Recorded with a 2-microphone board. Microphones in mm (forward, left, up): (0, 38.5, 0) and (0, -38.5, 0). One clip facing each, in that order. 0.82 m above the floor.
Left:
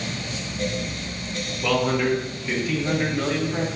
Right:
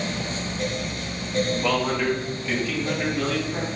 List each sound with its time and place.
1.6 s a man speaking: 10° right (ahead or behind), 1.4 m; by 3.7 s 25° left (ahead or behind), 2 m